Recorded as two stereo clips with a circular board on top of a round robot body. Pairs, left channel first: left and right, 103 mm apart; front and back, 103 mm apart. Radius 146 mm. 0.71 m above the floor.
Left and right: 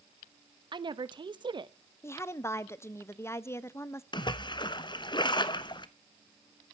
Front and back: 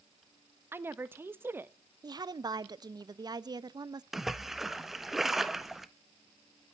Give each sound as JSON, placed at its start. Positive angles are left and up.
{"t": 0.7, "sound": "a woman speaking", "azimuth_deg": -115, "distance_m": 1.2}
{"t": 2.0, "sound": "a woman speaking", "azimuth_deg": 145, "distance_m": 0.9}
{"t": 4.1, "sound": "a splash", "azimuth_deg": 95, "distance_m": 1.3}